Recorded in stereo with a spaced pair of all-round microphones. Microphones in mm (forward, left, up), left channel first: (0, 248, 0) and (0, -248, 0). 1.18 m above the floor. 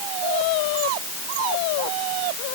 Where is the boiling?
I don't hear boiling.